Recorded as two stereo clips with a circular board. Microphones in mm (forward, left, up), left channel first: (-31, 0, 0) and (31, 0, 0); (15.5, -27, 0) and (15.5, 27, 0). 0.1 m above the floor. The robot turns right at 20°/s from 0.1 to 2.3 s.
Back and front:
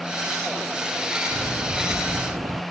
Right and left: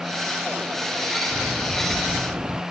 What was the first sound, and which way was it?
A bird, 10° left.